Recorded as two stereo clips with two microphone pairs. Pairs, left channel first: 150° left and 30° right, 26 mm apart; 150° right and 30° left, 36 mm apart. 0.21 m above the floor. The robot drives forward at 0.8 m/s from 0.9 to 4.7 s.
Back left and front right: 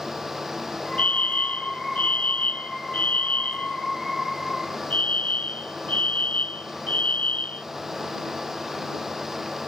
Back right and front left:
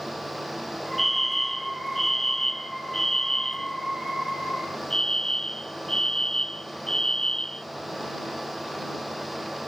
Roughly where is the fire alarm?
Behind left.